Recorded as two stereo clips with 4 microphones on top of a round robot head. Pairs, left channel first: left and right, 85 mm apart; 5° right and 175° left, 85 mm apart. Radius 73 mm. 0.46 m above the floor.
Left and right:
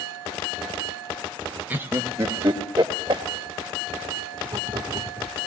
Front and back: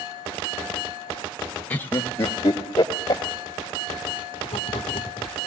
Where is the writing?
35° right, 1.2 m.